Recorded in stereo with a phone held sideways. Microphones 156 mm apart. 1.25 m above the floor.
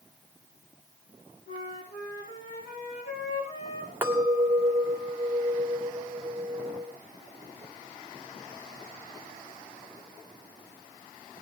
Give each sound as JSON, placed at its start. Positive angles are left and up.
{"t": 1.5, "sound": "a flute", "side_deg": 85, "distance_m": 9.0}
{"t": 4.0, "sound": "a clink", "side_deg": -15, "distance_m": 1.9}